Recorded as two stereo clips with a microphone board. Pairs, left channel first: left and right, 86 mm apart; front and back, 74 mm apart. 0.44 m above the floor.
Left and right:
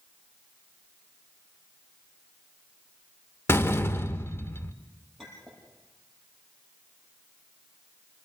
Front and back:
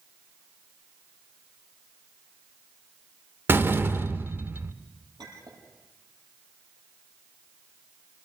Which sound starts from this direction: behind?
A clink, at 5.2 s.